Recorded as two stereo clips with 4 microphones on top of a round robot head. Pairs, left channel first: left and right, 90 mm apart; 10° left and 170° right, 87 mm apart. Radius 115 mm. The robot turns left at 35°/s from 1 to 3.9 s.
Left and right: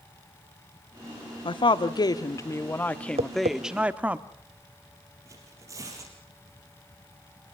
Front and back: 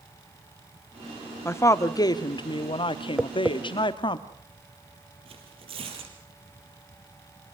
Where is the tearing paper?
150° right, 4.5 m.